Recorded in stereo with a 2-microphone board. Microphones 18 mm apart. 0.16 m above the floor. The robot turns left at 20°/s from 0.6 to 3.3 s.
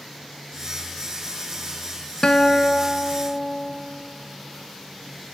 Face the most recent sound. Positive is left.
turn(degrees=50)  # may be behind; listen again after turning